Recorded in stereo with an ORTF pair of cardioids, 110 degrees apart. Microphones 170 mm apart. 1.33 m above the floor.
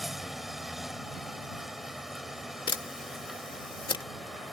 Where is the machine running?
Straight ahead.